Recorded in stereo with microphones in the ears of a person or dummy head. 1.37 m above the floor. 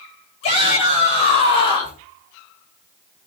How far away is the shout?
About 8 m.